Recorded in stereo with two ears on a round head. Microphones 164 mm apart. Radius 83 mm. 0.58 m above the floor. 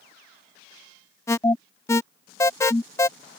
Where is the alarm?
15° left (ahead or behind).